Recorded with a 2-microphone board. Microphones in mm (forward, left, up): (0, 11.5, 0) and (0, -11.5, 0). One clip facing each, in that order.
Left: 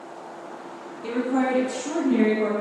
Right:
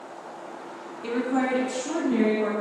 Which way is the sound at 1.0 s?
25° right (ahead or behind).